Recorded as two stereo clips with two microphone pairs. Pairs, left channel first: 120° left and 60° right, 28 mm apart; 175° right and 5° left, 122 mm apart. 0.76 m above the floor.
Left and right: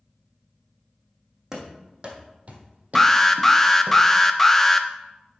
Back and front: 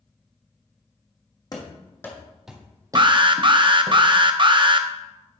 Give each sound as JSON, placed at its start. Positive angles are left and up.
{"t": 1.5, "sound": "running footsteps", "azimuth_deg": -120, "distance_m": 1.9}
{"t": 3.0, "sound": "an alarm", "azimuth_deg": 45, "distance_m": 0.6}